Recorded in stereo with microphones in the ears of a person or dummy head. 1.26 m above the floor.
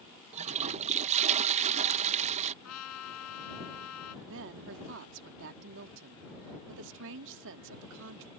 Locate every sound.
0.3 s a toilet flushing: 40° right (ahead or behind)
2.6 s a trumpet: 85° left
4.2 s a woman speaking: 70° right (ahead or behind)